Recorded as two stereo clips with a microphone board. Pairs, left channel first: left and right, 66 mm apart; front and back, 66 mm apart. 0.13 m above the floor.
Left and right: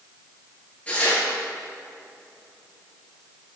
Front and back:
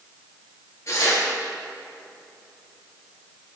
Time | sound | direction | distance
0.9 | tearing paper | 25° left | 2.5 m